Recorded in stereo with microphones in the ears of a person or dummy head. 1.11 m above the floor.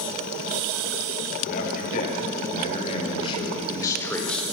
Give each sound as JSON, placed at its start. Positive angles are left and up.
{"t": 1.4, "sound": "a man speaking", "side_deg": 50, "distance_m": 6.5}